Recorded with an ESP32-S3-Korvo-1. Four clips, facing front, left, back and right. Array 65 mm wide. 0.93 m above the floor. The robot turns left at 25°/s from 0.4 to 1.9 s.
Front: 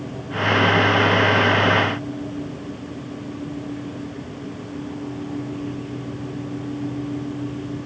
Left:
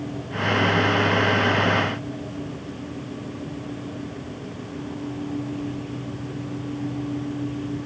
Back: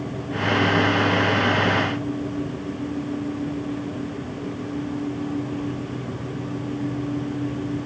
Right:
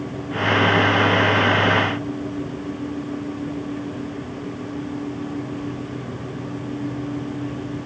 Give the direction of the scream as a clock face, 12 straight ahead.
No scream in this recording.